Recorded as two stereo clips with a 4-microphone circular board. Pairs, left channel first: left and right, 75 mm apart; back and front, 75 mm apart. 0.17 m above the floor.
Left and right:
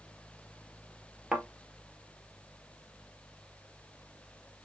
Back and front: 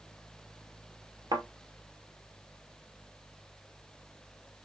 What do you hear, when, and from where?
1.3 s a thud: 5° right, 1.2 m